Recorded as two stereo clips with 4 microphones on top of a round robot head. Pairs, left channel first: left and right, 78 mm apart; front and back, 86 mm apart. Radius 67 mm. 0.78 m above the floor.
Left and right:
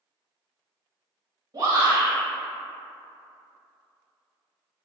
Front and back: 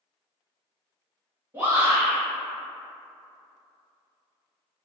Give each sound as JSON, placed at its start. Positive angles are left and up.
{"t": 1.5, "sound": "a shout", "azimuth_deg": -115, "distance_m": 1.4}